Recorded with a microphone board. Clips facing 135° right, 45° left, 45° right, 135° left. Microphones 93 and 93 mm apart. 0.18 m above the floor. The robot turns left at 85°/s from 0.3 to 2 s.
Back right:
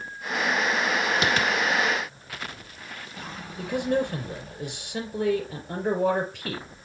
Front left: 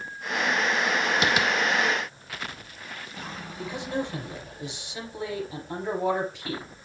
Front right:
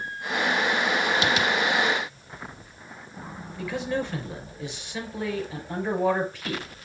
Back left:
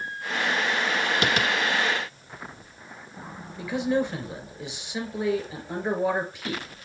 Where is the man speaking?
155° right, 3.5 m.